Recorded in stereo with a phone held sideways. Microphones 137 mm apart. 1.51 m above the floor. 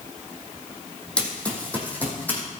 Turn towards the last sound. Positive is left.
turn(degrees=10)  # may be behind; listen again after turning